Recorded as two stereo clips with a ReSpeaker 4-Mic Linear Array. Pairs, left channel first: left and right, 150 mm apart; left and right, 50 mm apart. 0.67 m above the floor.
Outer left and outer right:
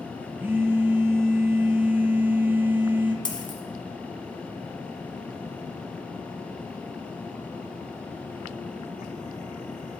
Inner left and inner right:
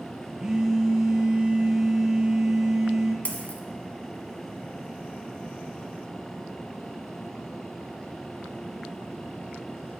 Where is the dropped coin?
30° left (ahead or behind), 1.2 m.